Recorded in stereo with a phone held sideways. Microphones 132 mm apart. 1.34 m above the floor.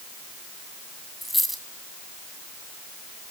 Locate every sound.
1.2 s a dropped coin: centre (ahead or behind), 2.5 m